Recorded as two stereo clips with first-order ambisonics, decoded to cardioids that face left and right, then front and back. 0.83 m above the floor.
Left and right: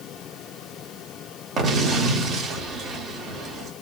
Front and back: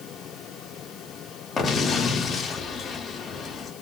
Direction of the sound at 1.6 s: 55° right.